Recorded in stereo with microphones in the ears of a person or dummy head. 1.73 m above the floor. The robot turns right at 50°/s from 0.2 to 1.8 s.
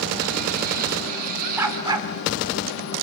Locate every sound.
1.6 s a dog barking: 10° right (ahead or behind), 2.5 m; by 2.1 s 20° right (ahead or behind), 2.5 m